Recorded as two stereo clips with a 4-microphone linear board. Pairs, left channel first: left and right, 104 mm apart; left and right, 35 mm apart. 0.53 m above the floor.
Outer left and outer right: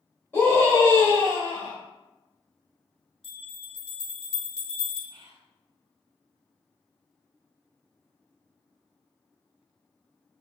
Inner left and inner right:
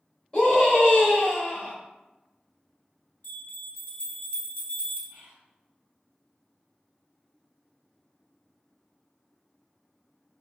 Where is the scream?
20° left (ahead or behind), 1.5 m; by 1.7 s 50° left (ahead or behind), 1.0 m.